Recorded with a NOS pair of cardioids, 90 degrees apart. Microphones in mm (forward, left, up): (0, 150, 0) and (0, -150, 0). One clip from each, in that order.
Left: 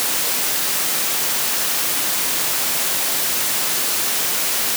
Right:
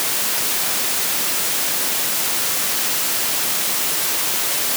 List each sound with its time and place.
Only background noise.